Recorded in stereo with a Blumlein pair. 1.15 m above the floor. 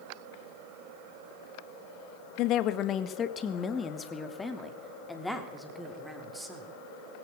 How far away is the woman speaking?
About 1.6 m.